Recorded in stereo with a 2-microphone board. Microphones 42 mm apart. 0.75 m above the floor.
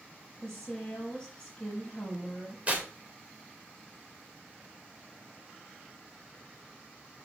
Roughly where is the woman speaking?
Centre.